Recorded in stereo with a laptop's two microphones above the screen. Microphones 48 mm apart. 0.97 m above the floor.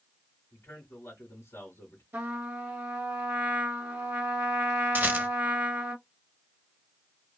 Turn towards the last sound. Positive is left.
turn(degrees=-45)  # may be behind; listen again after turning